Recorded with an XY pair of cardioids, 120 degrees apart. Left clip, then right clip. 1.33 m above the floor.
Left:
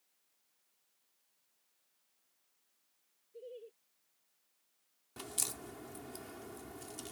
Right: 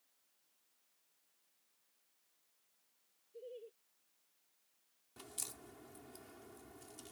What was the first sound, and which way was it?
Laughter, 10° left.